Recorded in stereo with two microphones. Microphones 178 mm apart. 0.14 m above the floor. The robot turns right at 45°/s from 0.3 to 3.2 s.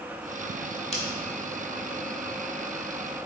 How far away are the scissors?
About 0.7 m.